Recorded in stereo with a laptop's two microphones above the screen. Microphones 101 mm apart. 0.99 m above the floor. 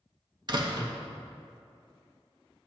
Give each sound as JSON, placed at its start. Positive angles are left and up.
{"t": 0.5, "sound": "a door slam", "side_deg": -45, "distance_m": 1.0}